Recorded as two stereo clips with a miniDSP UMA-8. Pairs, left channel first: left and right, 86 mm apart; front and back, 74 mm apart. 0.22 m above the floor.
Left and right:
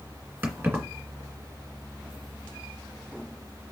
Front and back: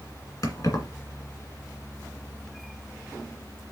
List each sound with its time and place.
0.4 s keys jangling: 25° right, 2 m